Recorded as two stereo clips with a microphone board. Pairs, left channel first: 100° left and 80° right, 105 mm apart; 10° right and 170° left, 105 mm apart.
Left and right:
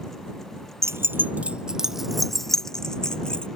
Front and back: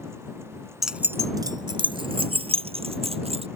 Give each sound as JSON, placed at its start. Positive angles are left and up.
{"t": 0.8, "sound": "keys jangling", "azimuth_deg": -105}